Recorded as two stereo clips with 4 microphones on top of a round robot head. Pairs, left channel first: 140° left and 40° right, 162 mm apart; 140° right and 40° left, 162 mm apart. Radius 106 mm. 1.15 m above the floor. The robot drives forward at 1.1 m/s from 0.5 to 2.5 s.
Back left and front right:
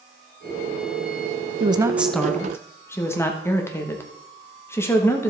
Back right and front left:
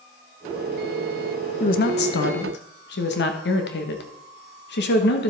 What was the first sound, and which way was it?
A woman speaking, 95° right.